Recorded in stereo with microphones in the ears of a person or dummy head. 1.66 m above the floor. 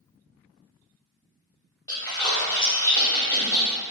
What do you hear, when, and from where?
1.9 s a splash: 20° left (ahead or behind), 0.7 m